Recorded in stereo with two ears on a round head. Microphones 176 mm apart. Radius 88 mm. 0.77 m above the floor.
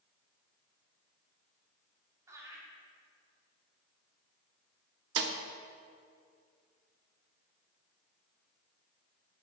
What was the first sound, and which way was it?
Laughter, 15° right (ahead or behind).